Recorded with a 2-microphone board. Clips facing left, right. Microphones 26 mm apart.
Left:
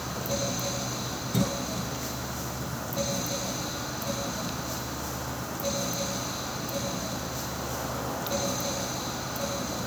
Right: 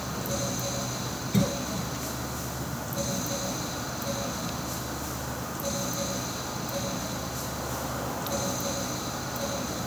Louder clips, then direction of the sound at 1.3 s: Right 2 dB; 10° right (ahead or behind).